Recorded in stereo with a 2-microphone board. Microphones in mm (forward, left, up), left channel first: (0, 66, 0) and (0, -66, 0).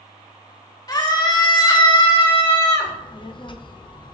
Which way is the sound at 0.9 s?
30° left (ahead or behind).